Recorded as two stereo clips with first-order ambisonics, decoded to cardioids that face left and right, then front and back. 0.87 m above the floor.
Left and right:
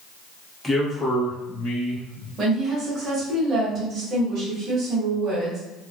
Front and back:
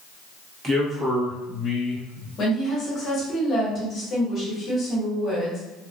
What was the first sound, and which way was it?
A man speaking, 170° left.